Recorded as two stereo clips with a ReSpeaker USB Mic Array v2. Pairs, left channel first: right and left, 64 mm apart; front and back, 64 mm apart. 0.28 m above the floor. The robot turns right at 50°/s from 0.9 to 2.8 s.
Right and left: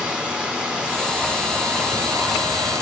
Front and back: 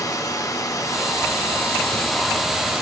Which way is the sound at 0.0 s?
15° left.